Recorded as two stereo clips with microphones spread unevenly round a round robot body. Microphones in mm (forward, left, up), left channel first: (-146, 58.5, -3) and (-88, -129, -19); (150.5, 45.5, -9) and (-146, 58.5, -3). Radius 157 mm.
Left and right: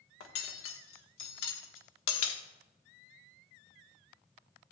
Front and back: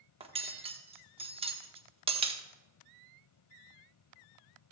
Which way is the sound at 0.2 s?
105° left.